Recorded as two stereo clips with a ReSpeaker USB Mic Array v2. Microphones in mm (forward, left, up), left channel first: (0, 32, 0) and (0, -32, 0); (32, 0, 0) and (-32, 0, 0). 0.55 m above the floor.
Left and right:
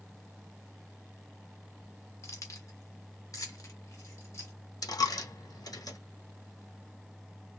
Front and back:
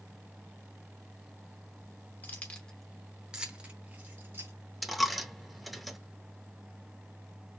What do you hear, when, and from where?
2.2 s keys jangling: 55° left, 0.8 m; by 4.5 s 130° left, 1.4 m
4.8 s a dropped coin: 90° left, 0.6 m